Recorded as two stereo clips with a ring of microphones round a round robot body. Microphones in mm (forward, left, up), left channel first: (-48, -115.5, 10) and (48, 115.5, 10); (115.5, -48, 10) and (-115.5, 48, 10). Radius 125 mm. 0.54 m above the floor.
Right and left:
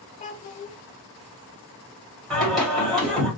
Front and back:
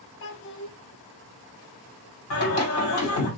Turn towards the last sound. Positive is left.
turn(degrees=-25)